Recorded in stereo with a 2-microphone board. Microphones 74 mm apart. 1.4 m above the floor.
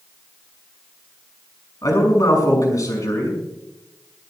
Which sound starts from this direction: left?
A man speaking, at 1.8 s.